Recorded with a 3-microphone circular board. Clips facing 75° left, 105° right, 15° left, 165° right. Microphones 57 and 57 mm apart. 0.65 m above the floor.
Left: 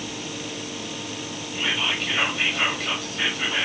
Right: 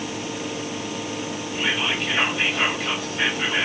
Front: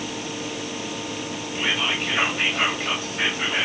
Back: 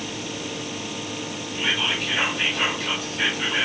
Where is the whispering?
30° right, 1.5 m.